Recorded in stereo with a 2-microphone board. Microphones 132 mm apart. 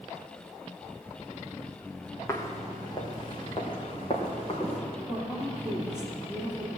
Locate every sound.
2.3 s footsteps: 20° left (ahead or behind), 2.5 m; by 4.8 s 45° left (ahead or behind), 5 m
5.1 s a woman speaking: 5° right (ahead or behind), 5 m